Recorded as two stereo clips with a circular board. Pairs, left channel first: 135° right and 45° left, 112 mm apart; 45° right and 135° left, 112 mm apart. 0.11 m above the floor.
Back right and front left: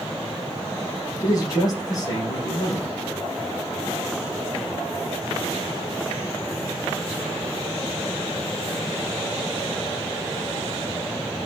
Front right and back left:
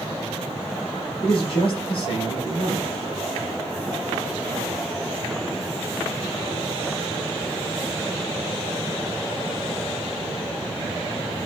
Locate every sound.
1.2 s a man speaking: 80° right, 5.5 m